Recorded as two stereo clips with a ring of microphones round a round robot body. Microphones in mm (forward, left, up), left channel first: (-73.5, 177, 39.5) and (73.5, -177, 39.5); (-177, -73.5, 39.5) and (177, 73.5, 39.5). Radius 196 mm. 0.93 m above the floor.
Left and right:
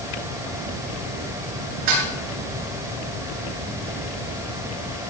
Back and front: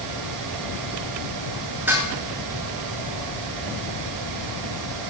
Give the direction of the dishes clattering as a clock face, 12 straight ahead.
2 o'clock.